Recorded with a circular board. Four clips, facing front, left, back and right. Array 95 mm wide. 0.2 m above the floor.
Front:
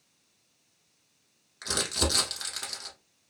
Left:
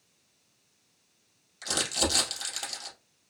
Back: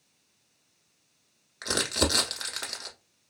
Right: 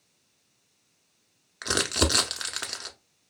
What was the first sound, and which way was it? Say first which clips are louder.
Crumpling: right 4 dB, back 3 dB; 105° right.